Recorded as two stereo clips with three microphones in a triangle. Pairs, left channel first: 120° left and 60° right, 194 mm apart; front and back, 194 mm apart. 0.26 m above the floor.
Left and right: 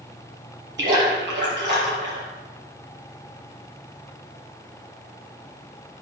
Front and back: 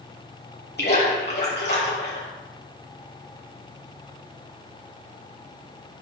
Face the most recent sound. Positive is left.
turn(degrees=-35)